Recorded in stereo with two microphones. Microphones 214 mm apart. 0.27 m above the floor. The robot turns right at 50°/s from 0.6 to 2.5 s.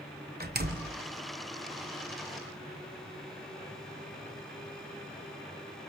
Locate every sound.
0.4 s a door slam: 45° right (ahead or behind), 1.1 m; by 1.0 s 50° right (ahead or behind), 1.1 m